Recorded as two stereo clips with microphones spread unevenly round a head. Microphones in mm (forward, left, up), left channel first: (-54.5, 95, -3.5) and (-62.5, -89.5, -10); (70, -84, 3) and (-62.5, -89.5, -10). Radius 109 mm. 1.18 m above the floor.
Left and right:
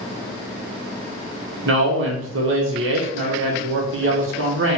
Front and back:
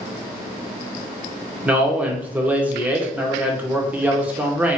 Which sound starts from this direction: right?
A man speaking, at 1.6 s.